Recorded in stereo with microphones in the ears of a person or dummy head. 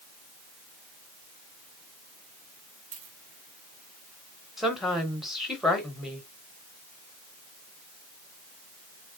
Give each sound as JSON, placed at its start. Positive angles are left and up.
{"t": 2.9, "sound": "a dropped coin", "side_deg": -35, "distance_m": 1.0}
{"t": 4.6, "sound": "a woman speaking", "side_deg": 0, "distance_m": 1.0}